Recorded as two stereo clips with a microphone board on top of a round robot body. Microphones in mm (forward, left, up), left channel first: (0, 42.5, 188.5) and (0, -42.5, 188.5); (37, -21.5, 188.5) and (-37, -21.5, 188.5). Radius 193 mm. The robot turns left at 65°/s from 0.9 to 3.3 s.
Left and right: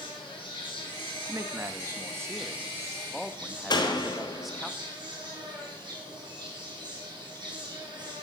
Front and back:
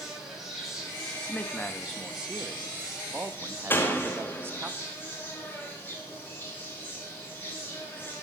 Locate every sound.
0.0 s an insect: 90° left, 4 m; by 8.2 s 65° right, 4 m
1.3 s a man speaking: 45° right, 0.9 m; by 4.7 s straight behind, 0.9 m
3.7 s a door slam: 60° left, 1.3 m